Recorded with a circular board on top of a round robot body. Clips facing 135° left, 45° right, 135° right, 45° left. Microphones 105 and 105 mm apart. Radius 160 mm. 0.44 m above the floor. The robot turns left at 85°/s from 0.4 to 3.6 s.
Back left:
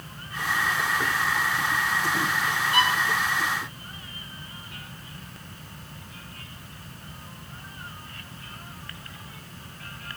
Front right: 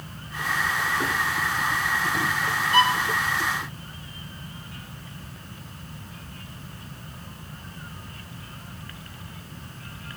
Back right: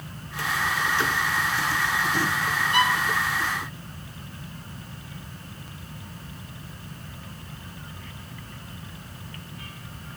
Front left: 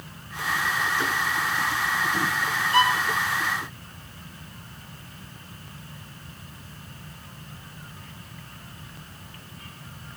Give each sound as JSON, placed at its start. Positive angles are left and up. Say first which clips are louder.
{"t": 2.7, "sound": "a violin", "louder": "front right 4 dB, front left 3 dB", "azimuth_deg": 5, "distance_m": 2.5}